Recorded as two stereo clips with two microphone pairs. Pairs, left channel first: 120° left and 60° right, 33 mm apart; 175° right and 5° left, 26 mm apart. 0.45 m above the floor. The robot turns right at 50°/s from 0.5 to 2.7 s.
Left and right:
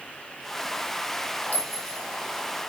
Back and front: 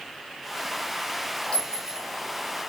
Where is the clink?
140° left, 0.9 m; by 2.1 s 165° left, 0.9 m.